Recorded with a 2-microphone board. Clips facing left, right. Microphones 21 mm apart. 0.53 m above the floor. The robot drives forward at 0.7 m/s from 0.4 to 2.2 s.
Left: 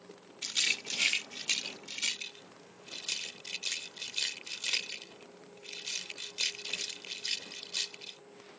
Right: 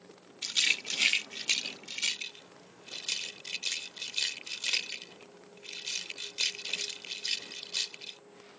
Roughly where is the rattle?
Centre.